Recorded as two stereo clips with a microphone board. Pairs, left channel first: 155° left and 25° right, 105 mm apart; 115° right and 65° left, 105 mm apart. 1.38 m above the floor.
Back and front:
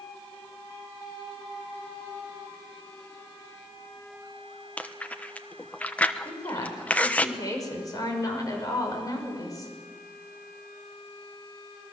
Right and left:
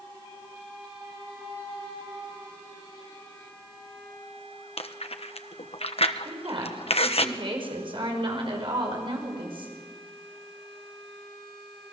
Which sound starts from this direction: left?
A woman speaking, at 6.2 s.